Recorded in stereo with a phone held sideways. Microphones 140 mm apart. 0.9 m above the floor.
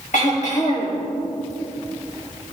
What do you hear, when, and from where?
0.1 s throat clearing: 70° left (ahead or behind), 6 m